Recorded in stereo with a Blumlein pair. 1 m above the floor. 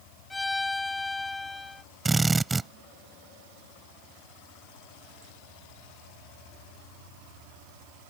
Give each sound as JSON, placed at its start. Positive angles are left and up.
{"t": 0.3, "sound": "a violin", "azimuth_deg": 10}
{"t": 2.0, "sound": "a drill", "azimuth_deg": -10}